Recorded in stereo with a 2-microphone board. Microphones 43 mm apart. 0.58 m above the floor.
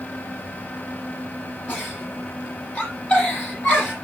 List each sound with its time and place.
1.7 s a giggle: 45° left (ahead or behind), 10 m